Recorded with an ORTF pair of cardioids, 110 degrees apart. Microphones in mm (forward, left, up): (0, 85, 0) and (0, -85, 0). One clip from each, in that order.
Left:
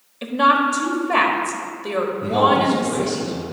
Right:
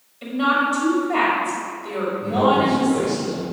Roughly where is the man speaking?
Ahead left.